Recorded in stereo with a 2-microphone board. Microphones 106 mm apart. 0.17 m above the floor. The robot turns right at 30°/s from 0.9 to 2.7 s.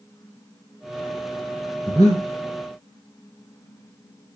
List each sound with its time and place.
1.9 s breathing: 5° left (ahead or behind), 2.0 m; by 2.2 s 5° right (ahead or behind), 2.0 m